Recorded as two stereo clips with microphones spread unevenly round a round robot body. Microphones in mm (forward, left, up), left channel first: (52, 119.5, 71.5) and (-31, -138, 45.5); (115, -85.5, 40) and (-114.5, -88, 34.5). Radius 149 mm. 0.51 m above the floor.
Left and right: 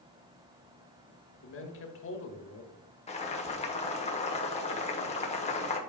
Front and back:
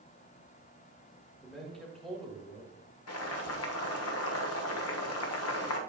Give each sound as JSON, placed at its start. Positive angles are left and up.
{"t": 1.4, "sound": "a man speaking", "azimuth_deg": 90, "distance_m": 1.4}
{"t": 3.1, "sound": "boiling", "azimuth_deg": 5, "distance_m": 1.2}